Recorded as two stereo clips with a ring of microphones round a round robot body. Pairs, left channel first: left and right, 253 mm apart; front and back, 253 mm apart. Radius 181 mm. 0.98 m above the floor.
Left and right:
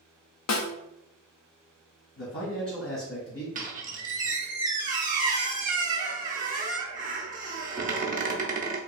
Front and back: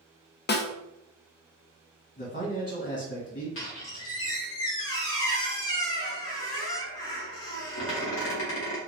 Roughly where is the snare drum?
Ahead left.